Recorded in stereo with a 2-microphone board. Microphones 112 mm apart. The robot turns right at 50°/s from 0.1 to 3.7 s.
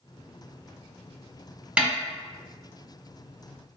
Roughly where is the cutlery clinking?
I don't hear cutlery clinking.